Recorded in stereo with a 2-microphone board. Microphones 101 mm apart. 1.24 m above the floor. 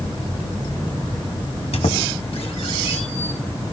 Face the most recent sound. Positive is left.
turn(degrees=75)  # may be behind; listen again after turning